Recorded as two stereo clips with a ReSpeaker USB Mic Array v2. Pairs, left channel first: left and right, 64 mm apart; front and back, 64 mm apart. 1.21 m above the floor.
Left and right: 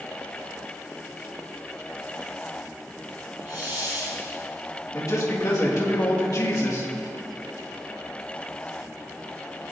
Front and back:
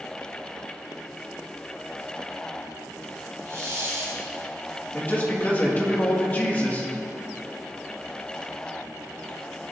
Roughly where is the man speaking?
Ahead left.